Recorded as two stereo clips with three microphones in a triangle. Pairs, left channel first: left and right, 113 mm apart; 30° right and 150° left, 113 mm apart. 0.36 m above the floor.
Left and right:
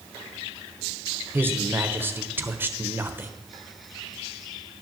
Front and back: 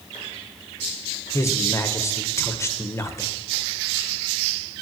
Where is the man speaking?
45° right, 1.1 m.